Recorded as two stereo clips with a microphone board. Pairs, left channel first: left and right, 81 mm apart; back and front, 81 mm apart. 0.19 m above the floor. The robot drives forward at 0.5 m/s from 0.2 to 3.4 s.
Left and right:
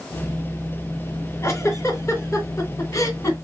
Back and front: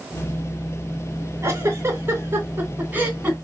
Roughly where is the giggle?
Ahead left.